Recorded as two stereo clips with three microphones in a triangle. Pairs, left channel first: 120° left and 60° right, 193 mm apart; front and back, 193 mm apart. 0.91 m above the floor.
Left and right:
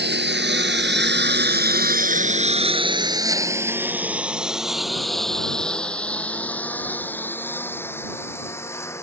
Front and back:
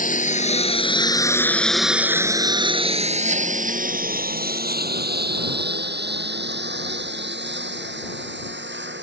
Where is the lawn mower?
40° right; by 9.0 s 165° right.